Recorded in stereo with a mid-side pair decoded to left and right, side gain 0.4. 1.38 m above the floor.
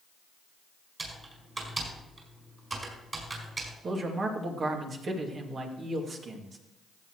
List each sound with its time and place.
1.0 s typing on a keyboard: 35° right, 5 m
3.8 s a man speaking: 55° right, 2.5 m